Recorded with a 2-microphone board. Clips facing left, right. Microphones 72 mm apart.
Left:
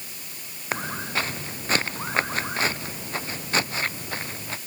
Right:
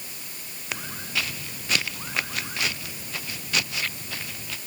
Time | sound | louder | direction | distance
0.7 | footsteps | left 4 dB | 35° left (ahead or behind) | ?